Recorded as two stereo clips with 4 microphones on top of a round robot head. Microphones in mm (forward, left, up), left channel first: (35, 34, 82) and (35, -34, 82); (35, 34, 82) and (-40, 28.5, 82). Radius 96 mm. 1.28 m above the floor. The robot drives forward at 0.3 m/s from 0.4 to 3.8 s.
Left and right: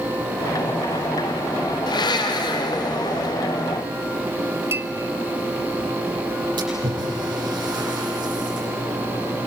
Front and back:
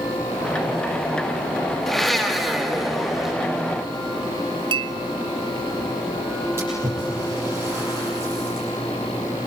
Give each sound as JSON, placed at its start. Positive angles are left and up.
{"t": 1.9, "sound": "a blender", "azimuth_deg": 95, "distance_m": 3.5}
{"t": 4.7, "sound": "a clink", "azimuth_deg": -150, "distance_m": 0.8}
{"t": 6.6, "sound": "a splash", "azimuth_deg": -115, "distance_m": 8.5}